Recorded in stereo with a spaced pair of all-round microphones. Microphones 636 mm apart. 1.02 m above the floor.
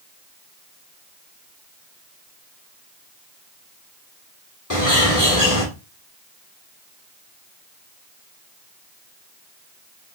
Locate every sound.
4.7 s a bird: 30° left (ahead or behind), 1.0 m